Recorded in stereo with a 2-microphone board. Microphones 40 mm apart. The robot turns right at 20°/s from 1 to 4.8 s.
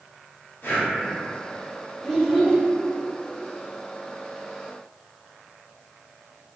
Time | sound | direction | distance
0.6 | breathing | 70° left (ahead or behind) | 0.7 m
2.0 | a child speaking | 5° left (ahead or behind) | 0.8 m